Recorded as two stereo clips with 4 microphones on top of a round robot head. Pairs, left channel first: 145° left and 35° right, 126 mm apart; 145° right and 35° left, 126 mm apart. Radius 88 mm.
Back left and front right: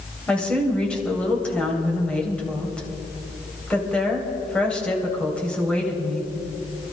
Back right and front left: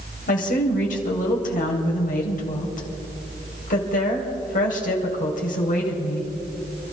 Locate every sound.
0.3 s a woman speaking: 130° right, 3 m